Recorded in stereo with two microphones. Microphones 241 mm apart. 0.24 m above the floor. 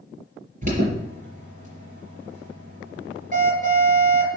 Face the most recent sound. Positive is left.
turn(degrees=-30)  # may be behind; listen again after turning